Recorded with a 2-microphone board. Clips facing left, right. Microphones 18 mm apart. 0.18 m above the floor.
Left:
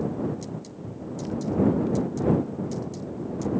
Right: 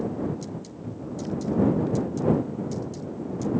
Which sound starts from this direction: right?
A cupboard door, at 0.8 s.